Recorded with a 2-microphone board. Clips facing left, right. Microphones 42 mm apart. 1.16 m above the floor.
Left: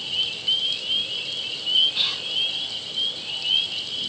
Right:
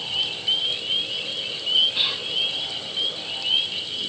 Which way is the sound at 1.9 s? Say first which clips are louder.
Right 1 dB; 15° right (ahead or behind).